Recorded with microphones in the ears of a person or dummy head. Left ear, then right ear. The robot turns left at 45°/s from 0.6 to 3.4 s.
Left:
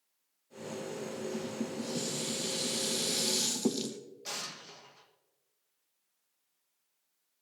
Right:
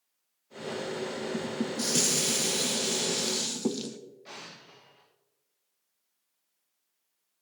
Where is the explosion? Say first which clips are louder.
Left 7 dB; 75° left (ahead or behind), 1.9 m.